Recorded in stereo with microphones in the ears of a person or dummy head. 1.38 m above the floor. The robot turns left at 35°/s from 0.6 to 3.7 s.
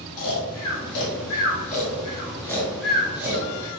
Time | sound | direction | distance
0.2 | snoring | 80° left | 0.8 m